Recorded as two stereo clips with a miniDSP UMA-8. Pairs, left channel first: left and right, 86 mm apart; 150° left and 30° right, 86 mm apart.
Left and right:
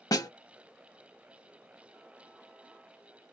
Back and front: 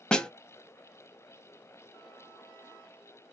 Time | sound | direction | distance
0.1 | a snare drum | 75° left | 0.6 m